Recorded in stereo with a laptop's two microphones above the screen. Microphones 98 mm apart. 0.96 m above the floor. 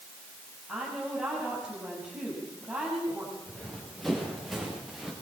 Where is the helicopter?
I don't hear a helicopter.